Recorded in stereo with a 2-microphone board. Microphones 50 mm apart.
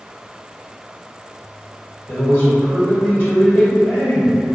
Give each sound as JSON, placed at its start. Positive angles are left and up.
{"t": 2.1, "sound": "a man speaking", "side_deg": 50, "distance_m": 1.8}